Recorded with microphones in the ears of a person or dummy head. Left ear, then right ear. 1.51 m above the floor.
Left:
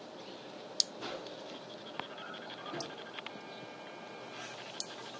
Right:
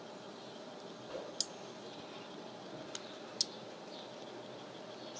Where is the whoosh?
30° right (ahead or behind), 3.5 m.